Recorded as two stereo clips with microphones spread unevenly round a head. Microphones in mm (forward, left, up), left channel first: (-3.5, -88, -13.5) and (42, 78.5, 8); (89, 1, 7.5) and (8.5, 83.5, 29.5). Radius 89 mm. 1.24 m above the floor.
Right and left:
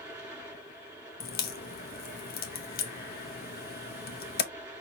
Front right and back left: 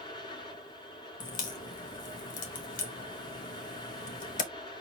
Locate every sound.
0.0 s a fan: straight ahead, 4 m
1.2 s a crack: 70° right, 0.7 m